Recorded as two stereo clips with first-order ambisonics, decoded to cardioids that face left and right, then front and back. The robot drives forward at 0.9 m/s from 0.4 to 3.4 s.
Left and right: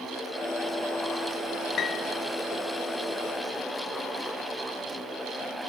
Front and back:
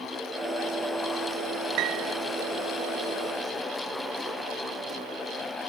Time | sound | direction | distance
1.8 | a piano | 150° left | 0.5 m